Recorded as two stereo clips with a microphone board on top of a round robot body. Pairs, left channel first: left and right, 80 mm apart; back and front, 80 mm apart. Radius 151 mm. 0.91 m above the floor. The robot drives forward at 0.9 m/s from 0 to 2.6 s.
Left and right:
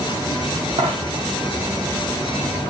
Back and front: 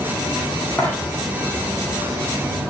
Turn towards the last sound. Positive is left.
turn(degrees=-120)